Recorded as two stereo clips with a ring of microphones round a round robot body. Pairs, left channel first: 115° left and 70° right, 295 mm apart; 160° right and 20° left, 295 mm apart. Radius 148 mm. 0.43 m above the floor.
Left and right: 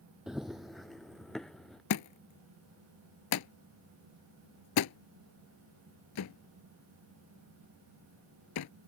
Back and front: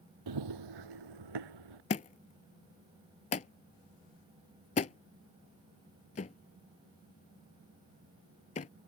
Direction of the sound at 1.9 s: 140° left.